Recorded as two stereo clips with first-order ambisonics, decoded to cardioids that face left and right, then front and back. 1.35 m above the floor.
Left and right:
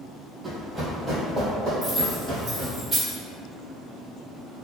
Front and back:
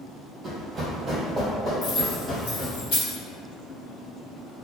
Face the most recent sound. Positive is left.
turn(degrees=-10)